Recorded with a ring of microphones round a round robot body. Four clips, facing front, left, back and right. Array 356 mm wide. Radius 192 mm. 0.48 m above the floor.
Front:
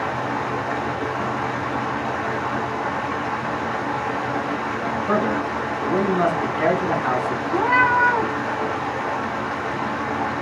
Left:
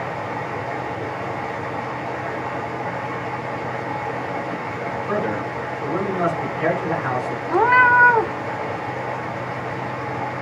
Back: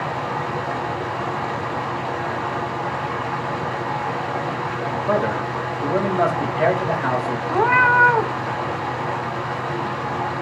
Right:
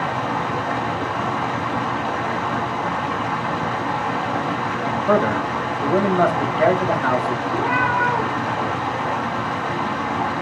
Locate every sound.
0.0 s running water: 95° right, 1.9 m
5.1 s a man speaking: 120° right, 3.5 m
7.5 s a cat meowing: 120° left, 0.9 m